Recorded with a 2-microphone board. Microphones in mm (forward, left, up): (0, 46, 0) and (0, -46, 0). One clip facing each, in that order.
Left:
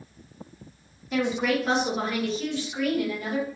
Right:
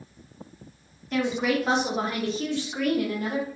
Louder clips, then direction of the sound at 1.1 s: Even; 5° left (ahead or behind).